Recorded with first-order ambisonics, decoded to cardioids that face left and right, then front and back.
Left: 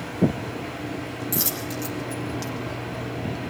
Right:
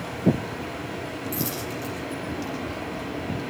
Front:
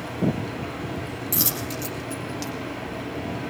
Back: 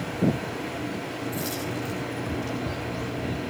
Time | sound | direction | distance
1.3 | a dropped coin | 25° left | 5.5 m